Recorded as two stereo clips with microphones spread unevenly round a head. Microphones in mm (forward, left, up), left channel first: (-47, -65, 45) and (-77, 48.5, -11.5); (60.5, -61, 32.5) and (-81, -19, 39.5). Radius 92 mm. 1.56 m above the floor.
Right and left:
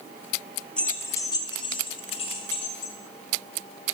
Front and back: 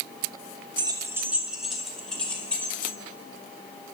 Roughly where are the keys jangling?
Behind right.